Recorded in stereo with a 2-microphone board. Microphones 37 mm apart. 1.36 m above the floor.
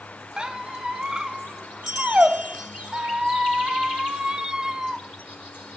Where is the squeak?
25° right (ahead or behind), 0.6 m.